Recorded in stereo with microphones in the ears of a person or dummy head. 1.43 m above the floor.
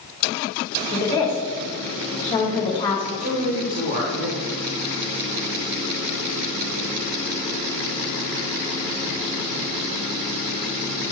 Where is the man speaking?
40° right (ahead or behind), 1.8 m.